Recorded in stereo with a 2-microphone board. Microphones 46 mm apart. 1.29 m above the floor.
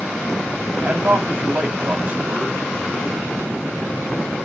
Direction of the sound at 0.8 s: 25° right (ahead or behind).